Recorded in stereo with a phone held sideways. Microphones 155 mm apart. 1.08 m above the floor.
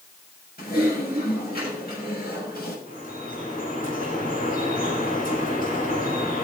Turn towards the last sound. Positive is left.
turn(degrees=65)  # may be behind; listen again after turning